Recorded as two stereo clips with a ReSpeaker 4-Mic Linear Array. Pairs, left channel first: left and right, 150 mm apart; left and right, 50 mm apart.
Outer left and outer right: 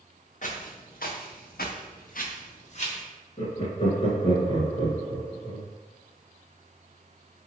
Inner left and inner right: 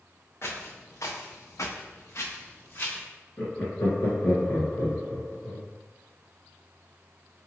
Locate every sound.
0.4 s footsteps: 55° left (ahead or behind), 1.1 m; by 3.0 s 40° left (ahead or behind), 1.2 m
3.4 s laughter: 40° left (ahead or behind), 1.6 m